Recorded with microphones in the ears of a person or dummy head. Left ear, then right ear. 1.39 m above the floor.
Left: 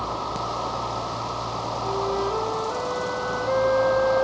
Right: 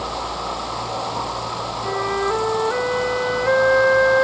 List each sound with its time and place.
1.8 s a flute: 70° right (ahead or behind), 0.8 m